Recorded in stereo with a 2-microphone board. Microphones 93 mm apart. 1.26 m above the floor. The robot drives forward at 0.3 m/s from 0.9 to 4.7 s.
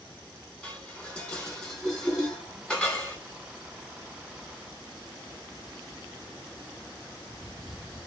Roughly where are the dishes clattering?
Centre.